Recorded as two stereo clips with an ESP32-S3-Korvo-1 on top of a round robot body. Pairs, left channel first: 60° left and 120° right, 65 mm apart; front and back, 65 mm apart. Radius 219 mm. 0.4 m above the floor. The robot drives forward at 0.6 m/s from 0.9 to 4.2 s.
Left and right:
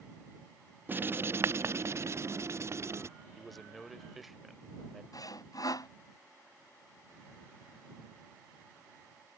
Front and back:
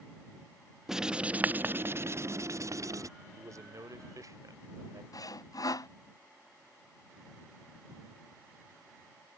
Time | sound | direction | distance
0.9 | writing | 105° right | ?
3.4 | a man speaking | 145° left | ?
5.1 | sawing | 30° left | ?